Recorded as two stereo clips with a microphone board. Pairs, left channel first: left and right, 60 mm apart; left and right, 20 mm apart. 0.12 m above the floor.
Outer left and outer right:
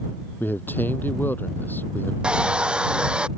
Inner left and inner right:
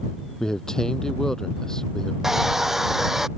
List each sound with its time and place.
0.4 s a man speaking: 35° left (ahead or behind)
2.2 s a hair dryer: 15° right (ahead or behind)